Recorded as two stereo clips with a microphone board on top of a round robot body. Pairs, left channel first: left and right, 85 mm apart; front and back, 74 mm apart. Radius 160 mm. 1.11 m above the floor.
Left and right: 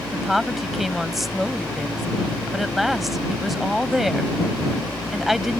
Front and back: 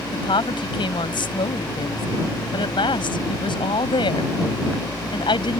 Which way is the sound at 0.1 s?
Straight ahead.